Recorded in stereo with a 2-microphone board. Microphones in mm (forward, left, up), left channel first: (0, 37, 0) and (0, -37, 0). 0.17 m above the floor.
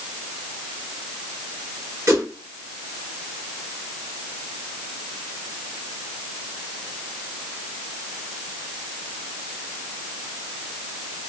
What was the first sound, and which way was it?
A whoosh, 45° right (ahead or behind).